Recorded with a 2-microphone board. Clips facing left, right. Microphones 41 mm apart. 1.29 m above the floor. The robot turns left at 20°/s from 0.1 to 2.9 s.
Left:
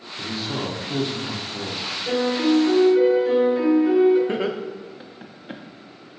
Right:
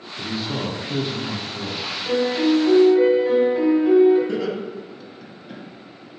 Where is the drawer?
I don't hear a drawer.